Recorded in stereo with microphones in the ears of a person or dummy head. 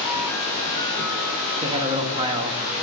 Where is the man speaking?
25° right (ahead or behind), 1.0 m.